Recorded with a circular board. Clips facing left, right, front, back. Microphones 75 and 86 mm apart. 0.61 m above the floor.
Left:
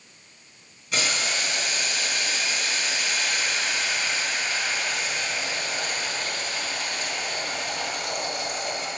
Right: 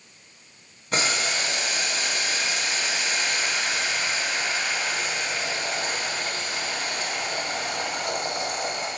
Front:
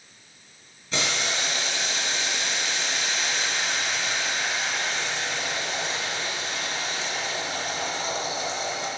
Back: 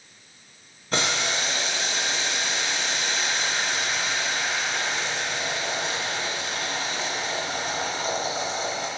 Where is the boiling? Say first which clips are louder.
Right 2 dB, back 2 dB; 140° right, 4 m.